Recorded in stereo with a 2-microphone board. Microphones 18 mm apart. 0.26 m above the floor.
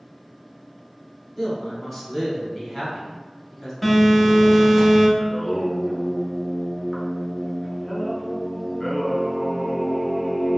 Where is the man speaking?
5° left (ahead or behind), 1.1 m.